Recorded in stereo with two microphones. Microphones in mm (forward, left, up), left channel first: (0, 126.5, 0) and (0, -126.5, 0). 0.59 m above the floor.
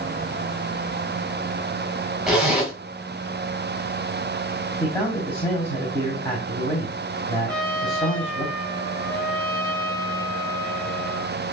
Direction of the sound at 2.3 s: Centre (ahead or behind).